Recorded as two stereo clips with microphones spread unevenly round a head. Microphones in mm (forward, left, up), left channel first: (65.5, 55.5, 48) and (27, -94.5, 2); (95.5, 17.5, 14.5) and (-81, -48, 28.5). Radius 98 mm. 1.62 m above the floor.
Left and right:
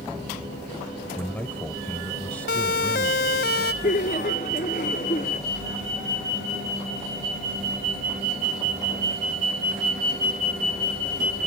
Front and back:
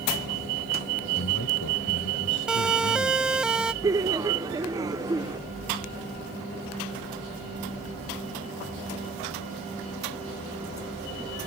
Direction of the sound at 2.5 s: 115° left.